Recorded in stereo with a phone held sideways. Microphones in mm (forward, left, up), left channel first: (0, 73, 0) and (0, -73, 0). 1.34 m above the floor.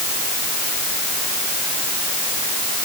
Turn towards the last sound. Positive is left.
No sound to turn to.